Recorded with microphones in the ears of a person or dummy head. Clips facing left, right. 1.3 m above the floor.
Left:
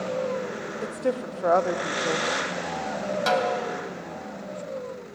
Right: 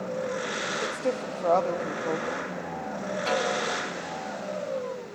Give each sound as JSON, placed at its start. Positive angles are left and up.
{"t": 0.8, "sound": "a woman speaking", "side_deg": 10, "distance_m": 1.0}
{"t": 3.3, "sound": "a snare drum", "side_deg": 75, "distance_m": 2.5}